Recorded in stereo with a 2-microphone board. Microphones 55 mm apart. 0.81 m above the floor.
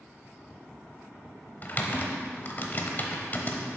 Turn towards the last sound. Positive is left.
turn(degrees=35)  # may be behind; listen again after turning